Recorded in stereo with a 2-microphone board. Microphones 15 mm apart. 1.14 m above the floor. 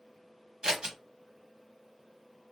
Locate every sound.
0.6 s scissors: 65° right (ahead or behind), 0.7 m